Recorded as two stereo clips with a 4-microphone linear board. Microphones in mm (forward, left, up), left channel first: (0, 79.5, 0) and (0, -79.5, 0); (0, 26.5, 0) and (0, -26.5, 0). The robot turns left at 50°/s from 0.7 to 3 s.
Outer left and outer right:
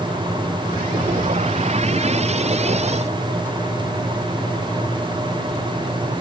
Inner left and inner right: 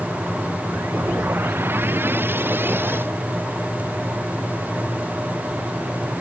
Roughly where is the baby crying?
No baby crying in this recording.